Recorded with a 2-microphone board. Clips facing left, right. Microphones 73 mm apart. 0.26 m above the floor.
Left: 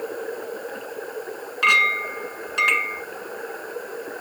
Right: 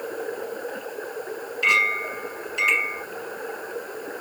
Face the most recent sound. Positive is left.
turn(degrees=70)  # may be behind; listen again after turning